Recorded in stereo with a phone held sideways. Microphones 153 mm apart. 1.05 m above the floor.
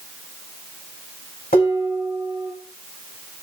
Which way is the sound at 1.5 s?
80° left.